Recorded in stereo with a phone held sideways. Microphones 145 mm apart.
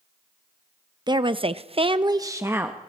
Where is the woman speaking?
30° right (ahead or behind), 0.8 m; by 2.8 s 10° right (ahead or behind), 1.2 m.